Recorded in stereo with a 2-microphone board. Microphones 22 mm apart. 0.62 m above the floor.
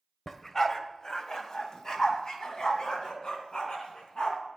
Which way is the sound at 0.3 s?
15° left (ahead or behind).